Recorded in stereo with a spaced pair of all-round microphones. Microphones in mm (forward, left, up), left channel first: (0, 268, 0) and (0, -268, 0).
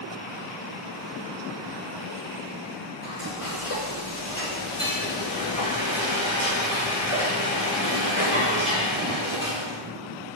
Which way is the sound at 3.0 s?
30° left (ahead or behind).